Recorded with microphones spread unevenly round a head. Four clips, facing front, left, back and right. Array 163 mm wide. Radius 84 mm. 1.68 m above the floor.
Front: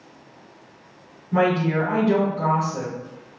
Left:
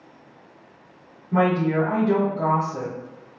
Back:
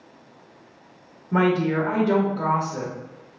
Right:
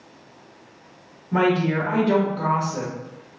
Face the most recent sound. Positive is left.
turn(degrees=-170)